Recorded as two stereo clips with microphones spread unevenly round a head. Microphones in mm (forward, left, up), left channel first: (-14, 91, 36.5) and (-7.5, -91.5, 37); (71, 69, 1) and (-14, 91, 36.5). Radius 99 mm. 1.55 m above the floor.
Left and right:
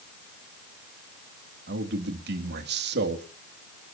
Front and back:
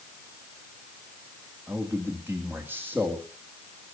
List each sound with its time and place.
1.7 s a man speaking: 115° right, 2.5 m